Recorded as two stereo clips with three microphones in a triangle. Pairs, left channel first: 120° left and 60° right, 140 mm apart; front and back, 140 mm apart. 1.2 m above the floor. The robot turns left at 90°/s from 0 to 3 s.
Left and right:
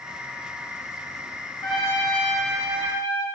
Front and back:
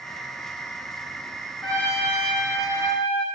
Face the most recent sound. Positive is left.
turn(degrees=-35)